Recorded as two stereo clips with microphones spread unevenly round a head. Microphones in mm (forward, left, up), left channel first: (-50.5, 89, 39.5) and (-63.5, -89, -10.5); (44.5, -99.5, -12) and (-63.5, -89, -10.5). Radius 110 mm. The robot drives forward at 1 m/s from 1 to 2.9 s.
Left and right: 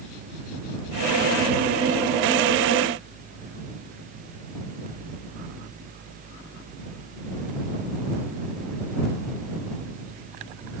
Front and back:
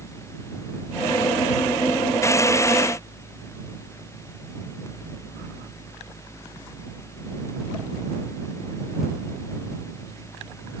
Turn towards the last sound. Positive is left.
No sound to turn to.